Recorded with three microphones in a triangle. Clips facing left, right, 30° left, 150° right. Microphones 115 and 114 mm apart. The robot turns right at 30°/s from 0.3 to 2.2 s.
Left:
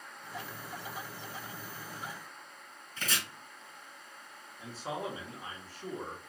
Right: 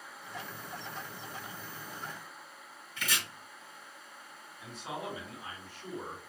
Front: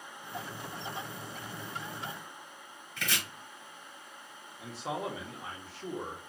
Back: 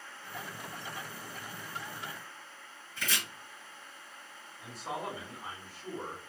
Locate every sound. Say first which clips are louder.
3.0 s chopping: even, front 1 dB; 40° left, 1.9 m
4.6 s a man speaking: left 2 dB, front 2 dB; 35° left, 1.3 m